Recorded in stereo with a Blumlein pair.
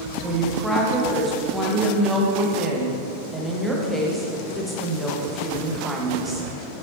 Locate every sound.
0.2 s a woman speaking: straight ahead, 1.2 m